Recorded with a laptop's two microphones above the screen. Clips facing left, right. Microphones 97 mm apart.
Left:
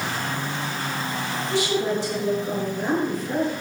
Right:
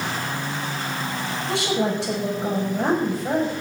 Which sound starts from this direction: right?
A woman speaking, at 1.5 s.